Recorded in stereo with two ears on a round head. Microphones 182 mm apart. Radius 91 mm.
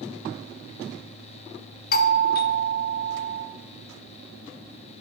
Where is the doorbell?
50° left (ahead or behind), 0.9 m.